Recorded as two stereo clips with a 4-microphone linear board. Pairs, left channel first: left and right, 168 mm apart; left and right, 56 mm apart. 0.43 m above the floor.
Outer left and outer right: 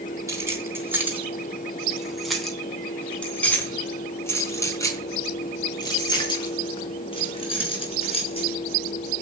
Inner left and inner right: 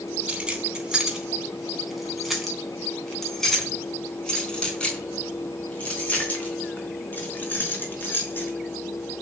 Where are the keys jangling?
20° right (ahead or behind), 3 m; by 8.5 s 35° left (ahead or behind), 5 m.